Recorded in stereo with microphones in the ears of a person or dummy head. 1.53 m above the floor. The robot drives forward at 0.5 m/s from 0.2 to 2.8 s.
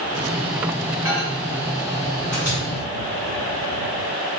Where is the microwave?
15° right (ahead or behind), 1.7 m; by 2.6 s 10° right (ahead or behind), 2.5 m.